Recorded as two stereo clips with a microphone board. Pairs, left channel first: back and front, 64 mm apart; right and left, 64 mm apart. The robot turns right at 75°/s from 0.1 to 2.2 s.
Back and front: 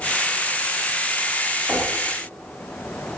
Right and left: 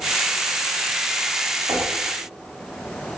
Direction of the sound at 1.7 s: 75° left.